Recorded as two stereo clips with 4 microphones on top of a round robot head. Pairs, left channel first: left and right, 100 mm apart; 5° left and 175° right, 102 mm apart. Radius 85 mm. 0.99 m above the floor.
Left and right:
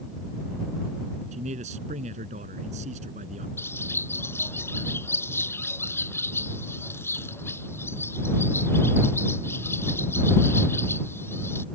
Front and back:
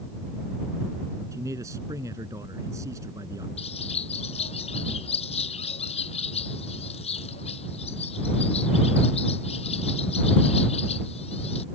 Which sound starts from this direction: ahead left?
A bird, at 3.6 s.